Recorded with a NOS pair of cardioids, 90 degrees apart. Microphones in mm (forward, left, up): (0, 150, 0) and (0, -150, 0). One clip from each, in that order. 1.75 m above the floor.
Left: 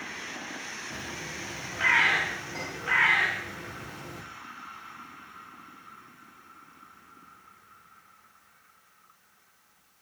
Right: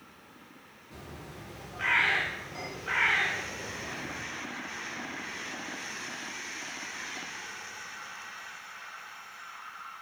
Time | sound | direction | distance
0.9 | a bird | 30° left | 2 m